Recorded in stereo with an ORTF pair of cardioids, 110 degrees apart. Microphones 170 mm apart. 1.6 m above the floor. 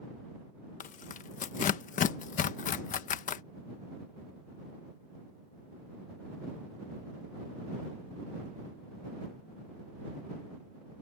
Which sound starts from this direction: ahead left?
Tearing paper, at 0.8 s.